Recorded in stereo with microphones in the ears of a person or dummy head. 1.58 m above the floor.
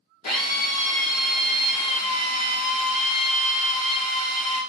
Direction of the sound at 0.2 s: 45° left (ahead or behind).